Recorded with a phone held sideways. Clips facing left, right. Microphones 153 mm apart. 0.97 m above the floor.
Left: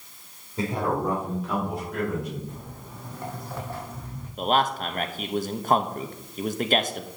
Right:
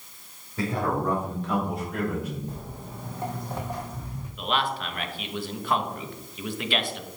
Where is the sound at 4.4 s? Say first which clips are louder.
Left 4 dB; 45° left (ahead or behind), 0.7 m.